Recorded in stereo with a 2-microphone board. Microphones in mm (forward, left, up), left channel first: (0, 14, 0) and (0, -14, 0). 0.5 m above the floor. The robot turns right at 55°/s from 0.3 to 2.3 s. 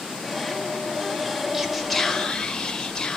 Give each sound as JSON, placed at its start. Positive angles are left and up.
{"t": 1.5, "sound": "whispering", "azimuth_deg": -15, "distance_m": 1.7}